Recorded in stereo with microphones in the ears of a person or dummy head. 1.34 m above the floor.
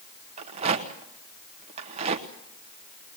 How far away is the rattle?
About 1.3 m.